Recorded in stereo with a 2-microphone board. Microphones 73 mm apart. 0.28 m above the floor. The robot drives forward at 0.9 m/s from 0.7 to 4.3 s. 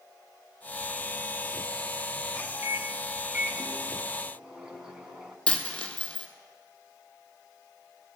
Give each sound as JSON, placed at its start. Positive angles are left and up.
{"t": 2.6, "sound": "a microwave", "side_deg": -25, "distance_m": 0.7}
{"t": 5.5, "sound": "a dropped coin", "side_deg": 15, "distance_m": 1.4}